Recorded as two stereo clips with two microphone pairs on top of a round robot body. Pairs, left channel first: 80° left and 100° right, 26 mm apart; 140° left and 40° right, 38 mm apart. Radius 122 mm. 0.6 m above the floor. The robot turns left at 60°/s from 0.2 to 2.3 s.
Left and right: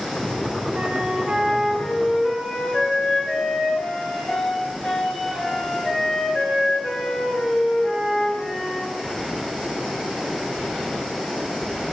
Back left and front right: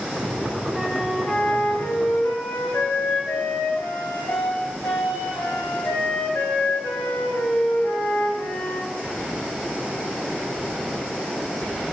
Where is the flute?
125° right, 1.7 m; by 8.9 s 145° left, 1.7 m.